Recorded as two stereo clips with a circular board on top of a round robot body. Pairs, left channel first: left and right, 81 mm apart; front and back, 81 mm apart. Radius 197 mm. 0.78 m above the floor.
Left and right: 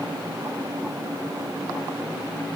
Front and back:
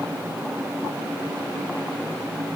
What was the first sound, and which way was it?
Only background noise.